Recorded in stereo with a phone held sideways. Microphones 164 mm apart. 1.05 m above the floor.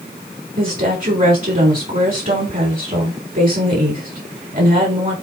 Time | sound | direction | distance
0.6 | a woman speaking | 55° right (ahead or behind) | 3.5 m